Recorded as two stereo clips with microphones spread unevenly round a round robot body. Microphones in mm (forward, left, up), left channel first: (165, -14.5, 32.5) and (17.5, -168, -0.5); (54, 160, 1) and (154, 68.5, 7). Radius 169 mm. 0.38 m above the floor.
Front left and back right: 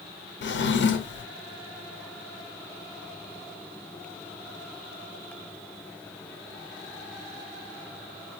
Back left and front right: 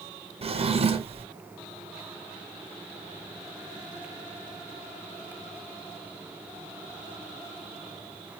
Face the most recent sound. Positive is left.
turn(degrees=5)